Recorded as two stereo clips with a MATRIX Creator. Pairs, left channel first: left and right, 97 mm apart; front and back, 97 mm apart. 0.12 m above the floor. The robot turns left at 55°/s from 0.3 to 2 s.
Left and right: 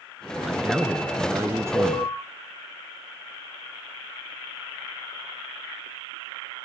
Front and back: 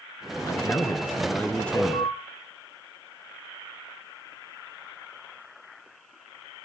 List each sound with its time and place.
0.4 s a man speaking: 5° left, 1.3 m; by 2.1 s 85° right, 1.3 m
1.8 s an alarm: 40° left, 4.5 m; by 2.1 s 25° left, 4.5 m